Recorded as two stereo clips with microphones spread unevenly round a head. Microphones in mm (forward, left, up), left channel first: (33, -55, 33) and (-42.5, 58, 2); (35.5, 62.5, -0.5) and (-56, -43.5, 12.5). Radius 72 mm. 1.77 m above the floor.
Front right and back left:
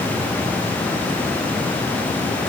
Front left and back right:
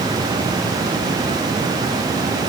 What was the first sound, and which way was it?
Only background noise.